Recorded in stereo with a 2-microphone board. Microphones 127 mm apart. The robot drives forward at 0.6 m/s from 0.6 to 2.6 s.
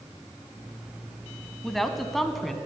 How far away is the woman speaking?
About 1.1 m.